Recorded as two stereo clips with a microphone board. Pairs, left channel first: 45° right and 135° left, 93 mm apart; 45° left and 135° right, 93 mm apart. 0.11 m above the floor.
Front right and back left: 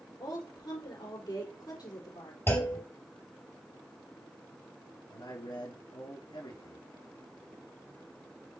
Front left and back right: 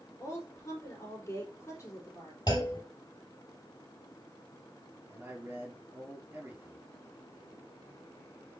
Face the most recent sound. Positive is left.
turn(degrees=-75)